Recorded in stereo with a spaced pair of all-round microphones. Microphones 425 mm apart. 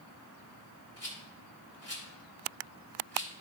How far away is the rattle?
About 2.5 m.